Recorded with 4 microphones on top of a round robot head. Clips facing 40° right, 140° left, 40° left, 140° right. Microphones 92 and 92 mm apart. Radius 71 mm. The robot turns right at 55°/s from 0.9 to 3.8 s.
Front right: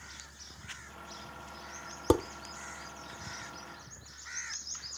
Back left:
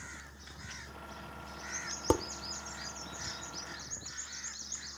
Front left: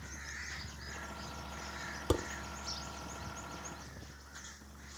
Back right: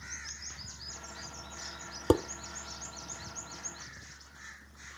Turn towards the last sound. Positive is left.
turn(degrees=-30)